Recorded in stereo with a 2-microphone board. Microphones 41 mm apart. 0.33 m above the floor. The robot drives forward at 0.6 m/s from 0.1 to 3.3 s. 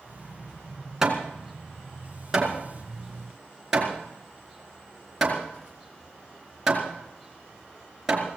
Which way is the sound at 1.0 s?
15° right (ahead or behind).